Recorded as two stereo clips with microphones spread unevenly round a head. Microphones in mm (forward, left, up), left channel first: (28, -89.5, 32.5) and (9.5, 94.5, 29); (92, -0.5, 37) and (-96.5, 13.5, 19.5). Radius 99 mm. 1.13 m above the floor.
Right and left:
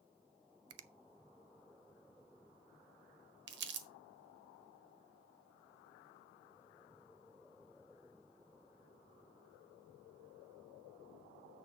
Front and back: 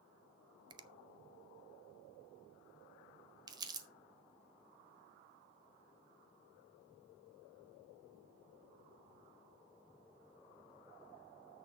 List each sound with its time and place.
0.7 s a finger snap: 105° left, 0.6 m
3.5 s crumpling: 105° left, 1.2 m